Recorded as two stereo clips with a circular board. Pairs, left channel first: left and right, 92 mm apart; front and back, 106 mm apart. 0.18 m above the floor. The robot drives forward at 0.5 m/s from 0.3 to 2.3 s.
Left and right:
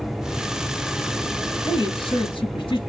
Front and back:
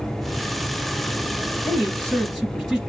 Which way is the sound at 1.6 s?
85° left.